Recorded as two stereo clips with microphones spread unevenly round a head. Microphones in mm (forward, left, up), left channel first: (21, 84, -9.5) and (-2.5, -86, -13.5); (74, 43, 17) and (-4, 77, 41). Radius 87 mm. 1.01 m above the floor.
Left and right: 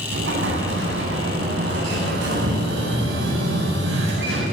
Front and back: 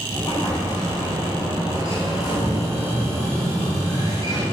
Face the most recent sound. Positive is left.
turn(degrees=-80)